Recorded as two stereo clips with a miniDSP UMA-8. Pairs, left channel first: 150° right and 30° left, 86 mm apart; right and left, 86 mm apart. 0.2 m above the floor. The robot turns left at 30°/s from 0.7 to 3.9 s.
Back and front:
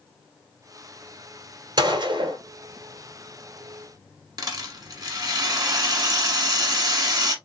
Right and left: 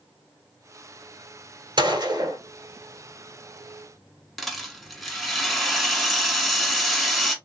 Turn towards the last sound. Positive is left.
turn(degrees=0)